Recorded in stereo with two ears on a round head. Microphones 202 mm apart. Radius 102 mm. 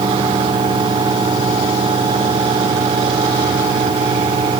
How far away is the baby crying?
No baby crying in this recording.